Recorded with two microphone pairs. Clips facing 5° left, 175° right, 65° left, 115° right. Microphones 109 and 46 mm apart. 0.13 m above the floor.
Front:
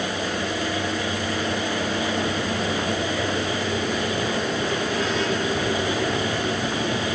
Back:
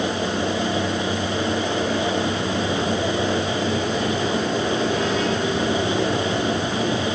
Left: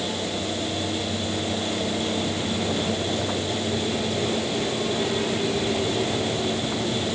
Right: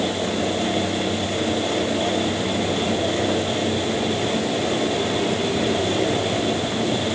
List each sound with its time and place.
Only background noise.